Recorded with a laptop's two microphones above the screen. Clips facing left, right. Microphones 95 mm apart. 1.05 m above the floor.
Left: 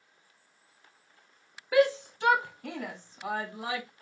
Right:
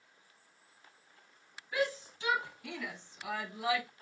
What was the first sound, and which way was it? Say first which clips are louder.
A shout: left 10 dB; 80° left.